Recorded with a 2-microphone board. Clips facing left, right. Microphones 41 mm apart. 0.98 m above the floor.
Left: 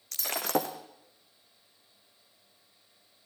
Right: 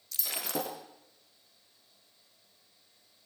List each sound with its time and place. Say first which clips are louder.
0.1 s breaking glass: left 6 dB; 55° left (ahead or behind), 3 m